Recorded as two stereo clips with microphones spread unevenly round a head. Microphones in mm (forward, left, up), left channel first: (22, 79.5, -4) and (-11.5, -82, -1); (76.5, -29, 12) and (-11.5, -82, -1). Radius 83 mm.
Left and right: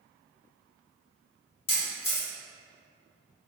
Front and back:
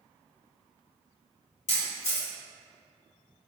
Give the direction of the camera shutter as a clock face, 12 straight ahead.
11 o'clock.